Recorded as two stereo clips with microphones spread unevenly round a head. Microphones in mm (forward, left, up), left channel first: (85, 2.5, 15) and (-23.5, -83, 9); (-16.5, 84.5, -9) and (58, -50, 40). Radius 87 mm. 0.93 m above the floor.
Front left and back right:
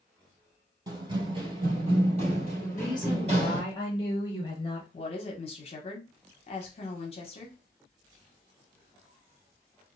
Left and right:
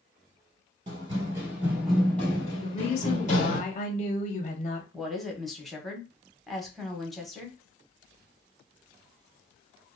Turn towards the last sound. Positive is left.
turn(degrees=55)